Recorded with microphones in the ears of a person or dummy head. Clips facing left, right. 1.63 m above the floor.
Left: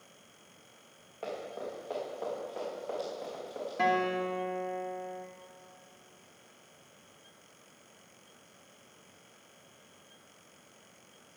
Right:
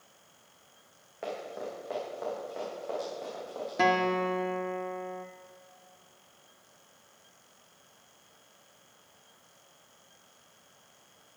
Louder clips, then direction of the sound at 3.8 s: Right 3 dB; 60° right (ahead or behind).